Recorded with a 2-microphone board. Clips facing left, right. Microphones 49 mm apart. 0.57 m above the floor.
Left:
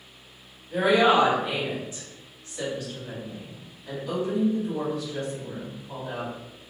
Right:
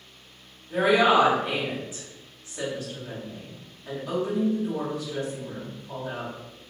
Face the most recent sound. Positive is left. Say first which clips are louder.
# even
turn(degrees=-25)  # may be behind; listen again after turning